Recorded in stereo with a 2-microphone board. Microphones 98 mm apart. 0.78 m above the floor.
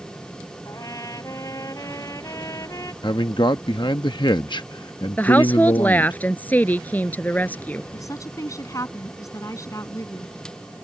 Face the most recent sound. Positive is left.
turn(degrees=35)  # may be behind; listen again after turning